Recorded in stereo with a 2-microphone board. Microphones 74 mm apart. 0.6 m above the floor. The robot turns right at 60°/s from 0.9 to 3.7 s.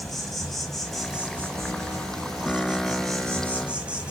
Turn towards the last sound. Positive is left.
turn(degrees=-15)